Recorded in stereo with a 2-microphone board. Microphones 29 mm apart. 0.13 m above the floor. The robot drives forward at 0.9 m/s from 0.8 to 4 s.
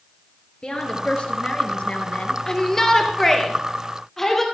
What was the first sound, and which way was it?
A woman speaking, 40° left (ahead or behind).